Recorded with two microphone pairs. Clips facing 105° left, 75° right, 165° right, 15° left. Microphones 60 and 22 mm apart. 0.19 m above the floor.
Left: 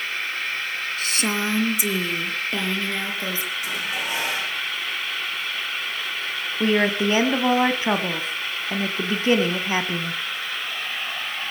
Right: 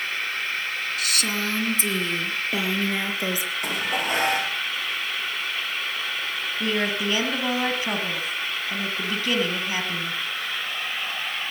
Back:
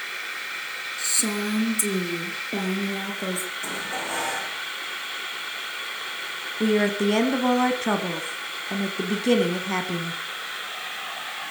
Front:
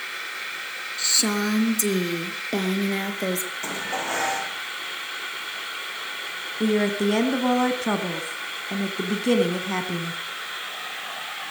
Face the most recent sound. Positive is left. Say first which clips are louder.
# left 6 dB, even
turn(degrees=120)